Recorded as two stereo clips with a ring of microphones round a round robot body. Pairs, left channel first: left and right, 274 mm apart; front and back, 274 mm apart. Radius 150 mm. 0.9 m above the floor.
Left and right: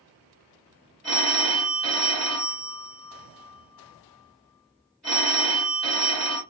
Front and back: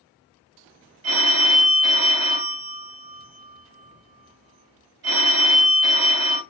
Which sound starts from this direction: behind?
A phone ringing, at 1.0 s.